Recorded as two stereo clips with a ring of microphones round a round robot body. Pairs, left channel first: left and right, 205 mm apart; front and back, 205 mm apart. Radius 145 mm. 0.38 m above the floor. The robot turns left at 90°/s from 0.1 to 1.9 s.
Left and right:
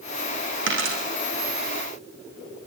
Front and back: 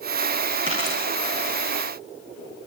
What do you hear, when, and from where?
0.7 s a dropped coin: 70° right, 9 m; by 1.0 s 100° right, 9 m